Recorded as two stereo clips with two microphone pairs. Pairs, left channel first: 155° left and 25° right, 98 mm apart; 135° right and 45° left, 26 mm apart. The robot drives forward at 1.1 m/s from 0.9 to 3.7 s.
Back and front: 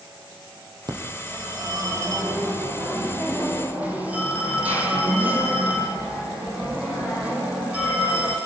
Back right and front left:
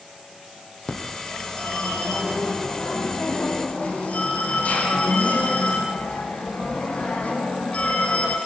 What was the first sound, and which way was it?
A phone ringing, 70° right.